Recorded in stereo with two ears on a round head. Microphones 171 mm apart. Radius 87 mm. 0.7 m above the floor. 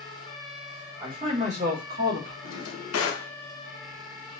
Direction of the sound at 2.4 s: 75° left (ahead or behind).